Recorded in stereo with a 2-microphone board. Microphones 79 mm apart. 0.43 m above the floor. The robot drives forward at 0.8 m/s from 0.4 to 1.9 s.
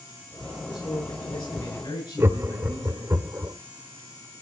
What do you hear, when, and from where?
0.7 s a man speaking: 75° left (ahead or behind), 8.5 m; by 3.1 s 80° left, 8.5 m
2.2 s laughter: 30° right (ahead or behind), 1.2 m